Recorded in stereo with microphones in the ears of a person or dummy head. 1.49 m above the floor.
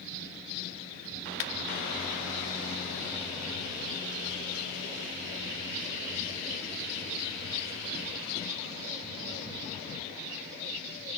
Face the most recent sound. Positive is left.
turn(degrees=70)  # may be behind; listen again after turning